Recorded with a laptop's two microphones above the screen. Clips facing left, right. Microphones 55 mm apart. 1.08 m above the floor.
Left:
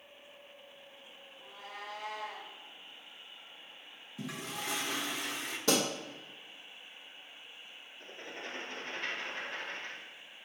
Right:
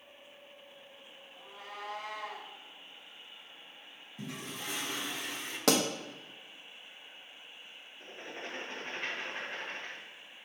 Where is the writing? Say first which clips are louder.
Right 1 dB; 20° right (ahead or behind), 1.4 m.